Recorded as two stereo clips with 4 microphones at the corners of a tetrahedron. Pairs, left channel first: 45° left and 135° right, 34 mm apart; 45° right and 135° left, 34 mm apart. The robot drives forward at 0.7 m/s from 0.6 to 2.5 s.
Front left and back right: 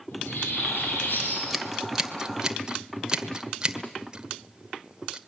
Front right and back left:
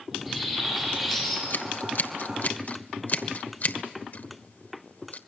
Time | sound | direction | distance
0.1 | a bird | 50° left | 9 m
1.5 | scissors | 50° right | 1.8 m